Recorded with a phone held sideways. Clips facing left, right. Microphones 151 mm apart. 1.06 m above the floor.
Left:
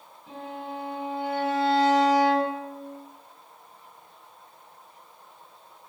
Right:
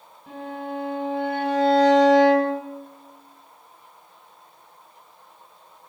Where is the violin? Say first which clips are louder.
Right 4 dB; 50° right (ahead or behind), 1.5 m.